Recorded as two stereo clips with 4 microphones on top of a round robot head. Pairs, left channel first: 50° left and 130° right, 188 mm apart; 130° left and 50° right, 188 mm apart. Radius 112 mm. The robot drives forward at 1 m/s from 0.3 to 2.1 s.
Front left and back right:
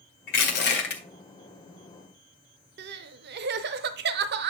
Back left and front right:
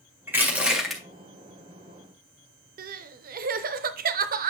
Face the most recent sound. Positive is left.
turn(degrees=-95)